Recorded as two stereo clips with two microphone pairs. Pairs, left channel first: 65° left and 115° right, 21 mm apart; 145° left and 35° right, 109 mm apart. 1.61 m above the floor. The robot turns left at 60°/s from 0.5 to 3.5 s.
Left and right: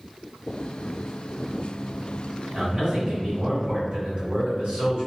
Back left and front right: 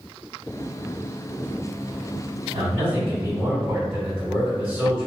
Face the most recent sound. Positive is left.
turn(degrees=-115)